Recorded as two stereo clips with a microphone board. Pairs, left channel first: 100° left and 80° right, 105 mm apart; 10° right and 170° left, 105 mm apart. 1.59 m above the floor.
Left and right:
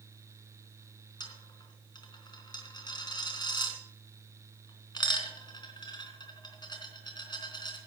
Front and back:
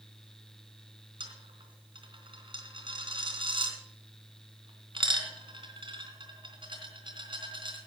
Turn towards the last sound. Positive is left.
turn(degrees=140)